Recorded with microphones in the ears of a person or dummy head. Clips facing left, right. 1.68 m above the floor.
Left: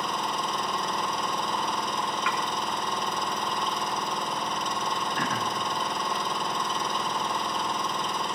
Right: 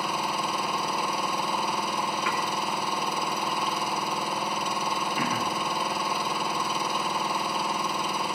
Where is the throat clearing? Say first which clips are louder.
Right 1 dB; 10° right (ahead or behind), 1.4 m.